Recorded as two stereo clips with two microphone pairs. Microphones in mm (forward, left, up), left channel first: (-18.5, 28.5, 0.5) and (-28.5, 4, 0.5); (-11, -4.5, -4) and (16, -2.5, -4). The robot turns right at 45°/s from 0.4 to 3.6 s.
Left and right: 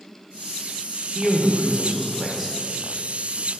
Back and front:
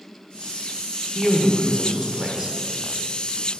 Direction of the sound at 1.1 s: 100° right.